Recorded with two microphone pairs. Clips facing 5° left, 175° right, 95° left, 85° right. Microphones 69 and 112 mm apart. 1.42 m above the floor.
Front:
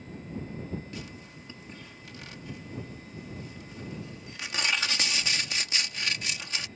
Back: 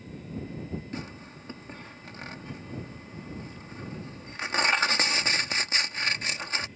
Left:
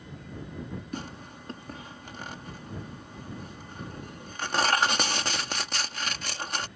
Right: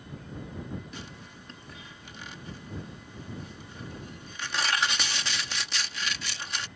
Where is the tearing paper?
135° left.